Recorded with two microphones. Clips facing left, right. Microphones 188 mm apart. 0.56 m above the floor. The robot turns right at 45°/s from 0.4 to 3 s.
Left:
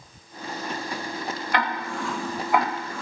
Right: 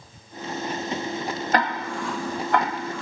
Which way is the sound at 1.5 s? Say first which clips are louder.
Right 3 dB; 40° right (ahead or behind).